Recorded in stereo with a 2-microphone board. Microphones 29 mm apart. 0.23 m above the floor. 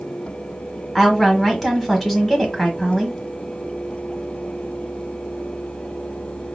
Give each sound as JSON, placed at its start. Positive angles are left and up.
{"t": 0.9, "sound": "a woman speaking", "side_deg": 0, "distance_m": 1.3}